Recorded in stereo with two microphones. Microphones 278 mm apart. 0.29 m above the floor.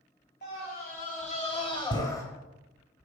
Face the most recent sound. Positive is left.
turn(degrees=10)  # may be behind; listen again after turning